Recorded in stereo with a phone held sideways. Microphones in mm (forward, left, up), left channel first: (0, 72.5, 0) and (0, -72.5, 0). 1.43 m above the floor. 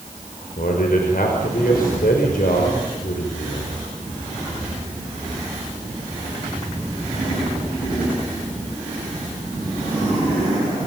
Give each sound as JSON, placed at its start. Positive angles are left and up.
{"t": 0.6, "sound": "a man speaking", "side_deg": 80, "distance_m": 5.0}